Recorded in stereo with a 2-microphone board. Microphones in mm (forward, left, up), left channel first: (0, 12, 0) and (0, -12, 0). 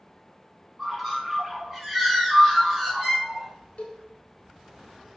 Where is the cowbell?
70° left (ahead or behind), 0.6 m.